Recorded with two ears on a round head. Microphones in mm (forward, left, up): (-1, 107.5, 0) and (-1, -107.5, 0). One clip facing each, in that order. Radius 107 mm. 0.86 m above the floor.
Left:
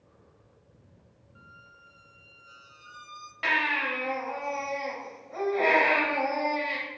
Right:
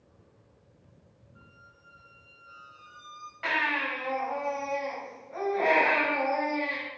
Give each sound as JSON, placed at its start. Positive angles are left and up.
{"t": 1.4, "sound": "a squeak", "side_deg": 35, "distance_m": 0.6}
{"t": 3.4, "sound": "a baby crying", "side_deg": 55, "distance_m": 2.5}